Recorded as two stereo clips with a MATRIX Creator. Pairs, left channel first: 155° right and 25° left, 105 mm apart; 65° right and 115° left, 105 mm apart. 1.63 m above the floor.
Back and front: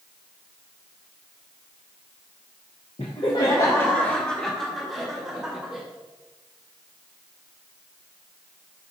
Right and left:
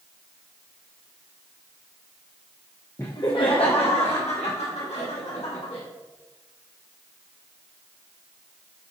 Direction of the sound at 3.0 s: 130° right.